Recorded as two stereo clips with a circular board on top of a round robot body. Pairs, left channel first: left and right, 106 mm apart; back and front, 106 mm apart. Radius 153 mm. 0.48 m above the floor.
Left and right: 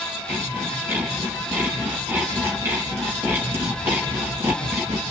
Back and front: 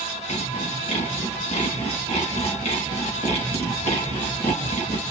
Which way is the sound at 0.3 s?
160° right.